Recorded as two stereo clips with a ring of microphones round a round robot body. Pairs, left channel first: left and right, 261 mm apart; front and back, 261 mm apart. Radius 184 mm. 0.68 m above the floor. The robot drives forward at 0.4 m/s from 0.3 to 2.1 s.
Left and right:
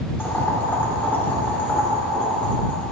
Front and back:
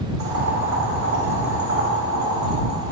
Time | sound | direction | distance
0.2 | boiling | 170° left | 2 m